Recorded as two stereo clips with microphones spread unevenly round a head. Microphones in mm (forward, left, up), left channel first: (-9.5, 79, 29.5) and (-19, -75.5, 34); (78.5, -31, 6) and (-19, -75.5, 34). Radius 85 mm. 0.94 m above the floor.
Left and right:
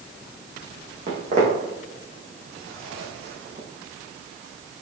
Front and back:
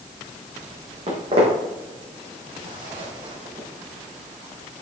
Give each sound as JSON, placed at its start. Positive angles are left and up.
{"t": 1.1, "sound": "footsteps", "azimuth_deg": -135, "distance_m": 3.0}